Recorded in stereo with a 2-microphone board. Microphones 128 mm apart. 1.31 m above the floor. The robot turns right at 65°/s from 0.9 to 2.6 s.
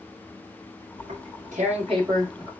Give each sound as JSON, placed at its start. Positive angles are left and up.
{"t": 1.0, "sound": "tearing paper", "side_deg": -70, "distance_m": 1.7}